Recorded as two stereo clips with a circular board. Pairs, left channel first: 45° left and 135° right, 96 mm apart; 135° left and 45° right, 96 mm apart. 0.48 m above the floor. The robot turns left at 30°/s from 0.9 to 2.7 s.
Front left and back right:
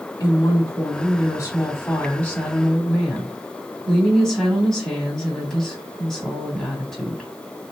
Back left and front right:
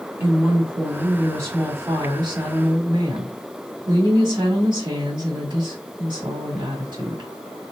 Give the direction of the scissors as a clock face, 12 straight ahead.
I don't hear scissors.